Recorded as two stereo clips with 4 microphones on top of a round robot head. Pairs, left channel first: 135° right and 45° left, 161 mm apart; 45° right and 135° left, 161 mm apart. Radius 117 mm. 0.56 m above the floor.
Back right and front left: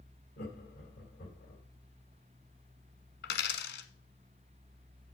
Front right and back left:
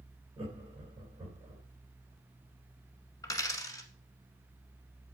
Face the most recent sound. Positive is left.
turn(degrees=-115)